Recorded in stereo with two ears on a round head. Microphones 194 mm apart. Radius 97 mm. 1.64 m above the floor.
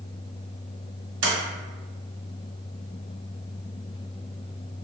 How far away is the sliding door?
About 1.4 m.